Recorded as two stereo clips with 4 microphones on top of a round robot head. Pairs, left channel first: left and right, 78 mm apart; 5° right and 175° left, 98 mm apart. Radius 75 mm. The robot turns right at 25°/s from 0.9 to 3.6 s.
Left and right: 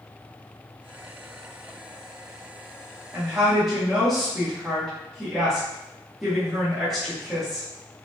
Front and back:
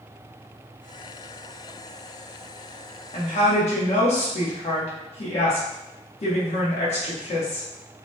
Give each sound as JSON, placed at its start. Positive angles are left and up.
{"t": 3.1, "sound": "a woman speaking", "azimuth_deg": -15, "distance_m": 1.0}